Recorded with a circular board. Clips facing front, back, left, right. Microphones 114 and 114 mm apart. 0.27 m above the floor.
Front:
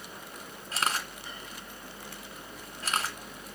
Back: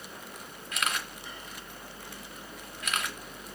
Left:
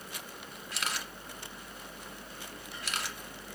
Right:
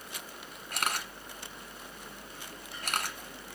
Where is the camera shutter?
55° right, 1.7 m.